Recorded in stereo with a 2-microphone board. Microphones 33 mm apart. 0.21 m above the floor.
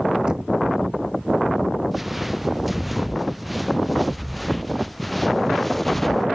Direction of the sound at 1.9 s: 10° right (ahead or behind).